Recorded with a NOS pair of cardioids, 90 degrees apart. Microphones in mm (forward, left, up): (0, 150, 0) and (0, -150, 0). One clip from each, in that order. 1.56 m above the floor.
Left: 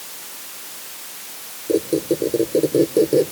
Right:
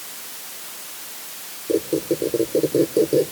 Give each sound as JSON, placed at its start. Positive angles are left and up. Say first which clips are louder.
{"t": 1.7, "sound": "a squeak", "louder": "left 2 dB", "azimuth_deg": 10}